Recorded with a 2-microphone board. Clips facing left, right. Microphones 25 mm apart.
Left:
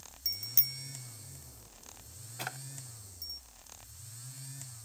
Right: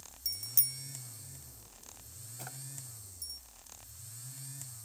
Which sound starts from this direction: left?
A drawer, at 2.4 s.